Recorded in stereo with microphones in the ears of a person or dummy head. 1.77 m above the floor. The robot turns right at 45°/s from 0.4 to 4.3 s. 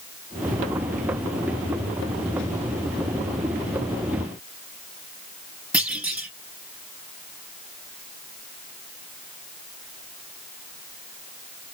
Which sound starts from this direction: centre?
A clunk, at 5.7 s.